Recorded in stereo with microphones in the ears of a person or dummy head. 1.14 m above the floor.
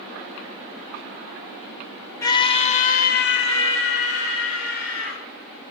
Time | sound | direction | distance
2.2 | a scream | 20° left (ahead or behind) | 1.7 m